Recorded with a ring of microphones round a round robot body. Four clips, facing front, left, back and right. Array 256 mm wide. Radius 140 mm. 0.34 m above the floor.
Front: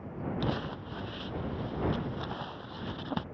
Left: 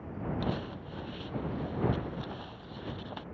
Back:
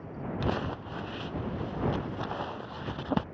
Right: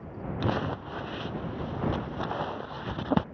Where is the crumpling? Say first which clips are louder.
Right 6 dB, back 5 dB; 105° right.